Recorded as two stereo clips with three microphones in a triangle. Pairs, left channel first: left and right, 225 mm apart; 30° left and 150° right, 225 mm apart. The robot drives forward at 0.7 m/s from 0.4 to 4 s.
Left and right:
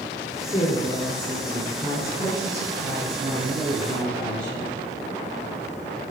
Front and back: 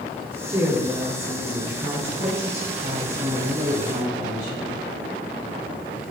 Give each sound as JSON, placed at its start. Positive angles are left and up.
{"t": 0.5, "sound": "a woman speaking", "azimuth_deg": 140, "distance_m": 2.5}